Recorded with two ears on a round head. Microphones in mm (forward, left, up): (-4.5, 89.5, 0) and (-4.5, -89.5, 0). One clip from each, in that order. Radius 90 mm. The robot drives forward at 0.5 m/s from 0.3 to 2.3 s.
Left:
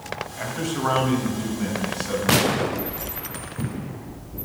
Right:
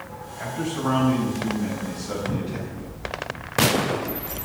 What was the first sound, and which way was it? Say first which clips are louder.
A man speaking: even; 45° left (ahead or behind).